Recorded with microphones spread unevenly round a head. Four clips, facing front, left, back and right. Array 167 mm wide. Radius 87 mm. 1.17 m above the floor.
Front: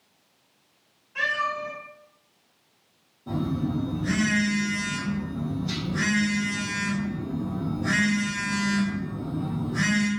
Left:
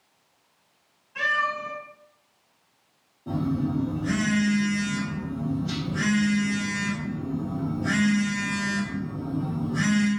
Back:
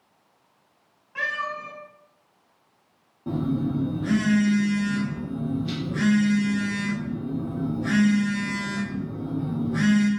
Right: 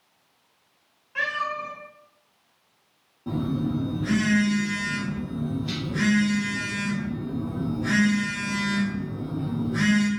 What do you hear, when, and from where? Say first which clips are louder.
1.1 s a cat meowing: left 2 dB, front 2 dB; 155° right, 1.9 m
3.3 s a phone buzzing: even, back 2 dB; 165° right, 0.9 m